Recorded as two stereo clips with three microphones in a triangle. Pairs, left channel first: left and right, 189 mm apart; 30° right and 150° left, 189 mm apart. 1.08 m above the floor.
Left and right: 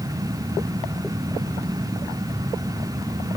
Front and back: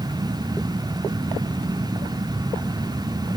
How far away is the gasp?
No gasp in this recording.